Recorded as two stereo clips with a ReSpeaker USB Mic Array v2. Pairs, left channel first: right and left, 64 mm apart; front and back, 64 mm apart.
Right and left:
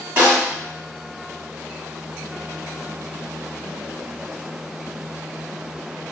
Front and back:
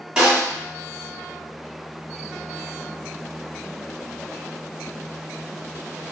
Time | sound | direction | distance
0.2 | a snare drum | 105° left | 1.4 m